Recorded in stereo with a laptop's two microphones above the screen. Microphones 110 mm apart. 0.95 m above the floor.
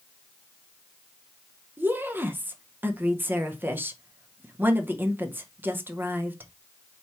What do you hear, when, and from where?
1.8 s a woman speaking: 20° right (ahead or behind), 0.7 m